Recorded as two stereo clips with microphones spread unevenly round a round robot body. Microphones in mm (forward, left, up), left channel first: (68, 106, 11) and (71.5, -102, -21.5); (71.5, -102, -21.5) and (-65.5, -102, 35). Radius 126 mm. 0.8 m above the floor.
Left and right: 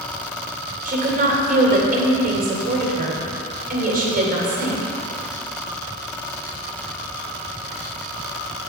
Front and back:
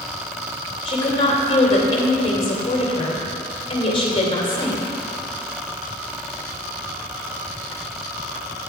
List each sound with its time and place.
0.8 s a woman speaking: 45° right, 3 m